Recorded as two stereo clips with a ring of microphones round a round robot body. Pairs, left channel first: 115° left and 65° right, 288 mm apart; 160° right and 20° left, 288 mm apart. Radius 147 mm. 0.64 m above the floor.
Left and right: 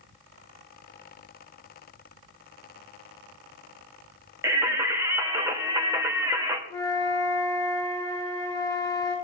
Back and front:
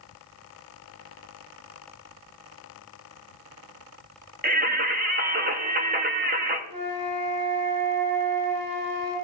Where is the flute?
35° left, 5.5 m.